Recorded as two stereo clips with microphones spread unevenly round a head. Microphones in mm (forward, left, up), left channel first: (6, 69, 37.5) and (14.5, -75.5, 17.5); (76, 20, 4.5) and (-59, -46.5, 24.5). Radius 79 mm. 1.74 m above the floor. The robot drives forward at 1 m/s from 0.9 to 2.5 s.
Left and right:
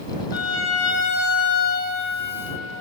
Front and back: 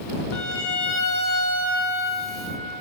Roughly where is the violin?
Left.